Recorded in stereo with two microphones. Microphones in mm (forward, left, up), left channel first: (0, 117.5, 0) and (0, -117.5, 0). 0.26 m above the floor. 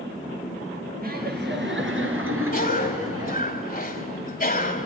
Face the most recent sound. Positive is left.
turn(degrees=40)  # may be behind; listen again after turning